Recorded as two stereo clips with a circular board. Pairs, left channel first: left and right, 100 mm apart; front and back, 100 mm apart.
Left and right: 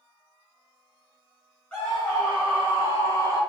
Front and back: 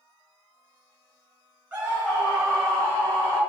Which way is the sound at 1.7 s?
145° left.